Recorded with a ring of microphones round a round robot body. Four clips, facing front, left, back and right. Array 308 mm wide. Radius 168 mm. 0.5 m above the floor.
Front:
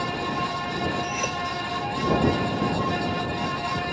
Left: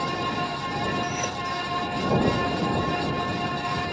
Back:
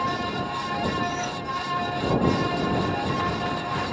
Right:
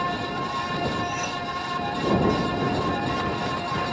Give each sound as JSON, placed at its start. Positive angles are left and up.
{"t": 1.0, "sound": "cutlery clinking", "azimuth_deg": 35}